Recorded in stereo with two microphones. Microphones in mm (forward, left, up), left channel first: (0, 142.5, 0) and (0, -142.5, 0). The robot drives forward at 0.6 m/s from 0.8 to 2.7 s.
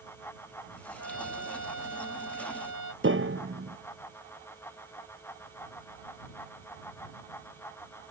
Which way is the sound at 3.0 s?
45° right (ahead or behind).